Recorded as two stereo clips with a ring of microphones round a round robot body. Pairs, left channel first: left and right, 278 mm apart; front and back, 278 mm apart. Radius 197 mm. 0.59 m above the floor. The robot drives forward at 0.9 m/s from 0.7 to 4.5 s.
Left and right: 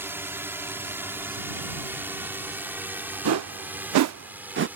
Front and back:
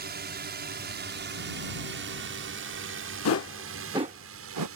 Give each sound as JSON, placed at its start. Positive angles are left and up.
{"t": 0.0, "sound": "a drone", "azimuth_deg": -165}
{"t": 3.2, "sound": "a whoosh", "azimuth_deg": -45}